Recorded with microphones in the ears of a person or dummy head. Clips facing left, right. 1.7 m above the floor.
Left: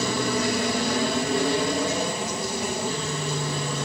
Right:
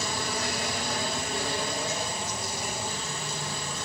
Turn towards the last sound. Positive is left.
turn(degrees=60)  # may be behind; listen again after turning